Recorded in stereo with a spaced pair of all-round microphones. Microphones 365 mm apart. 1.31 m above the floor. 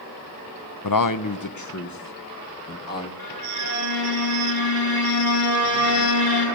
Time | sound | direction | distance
0.8 | a man speaking | 60° left (ahead or behind) | 0.7 m
3.2 | a violin | 60° left (ahead or behind) | 9 m